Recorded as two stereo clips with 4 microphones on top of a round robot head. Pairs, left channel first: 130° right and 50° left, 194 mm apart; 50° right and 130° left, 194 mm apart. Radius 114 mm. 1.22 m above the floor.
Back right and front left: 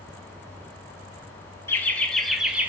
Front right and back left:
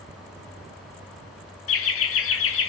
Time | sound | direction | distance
1.7 | laughter | 55° right | 1.8 m